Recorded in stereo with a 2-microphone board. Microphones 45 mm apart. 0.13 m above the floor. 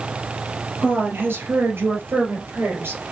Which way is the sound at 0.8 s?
55° right (ahead or behind).